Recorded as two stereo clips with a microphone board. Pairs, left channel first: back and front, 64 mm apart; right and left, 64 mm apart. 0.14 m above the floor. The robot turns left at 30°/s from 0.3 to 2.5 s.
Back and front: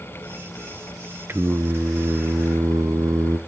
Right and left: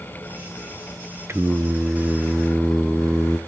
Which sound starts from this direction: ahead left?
Singing, at 1.3 s.